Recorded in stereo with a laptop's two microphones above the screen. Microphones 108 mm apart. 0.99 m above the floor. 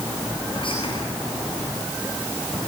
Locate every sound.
0.5 s whispering: 60° left (ahead or behind), 9.5 m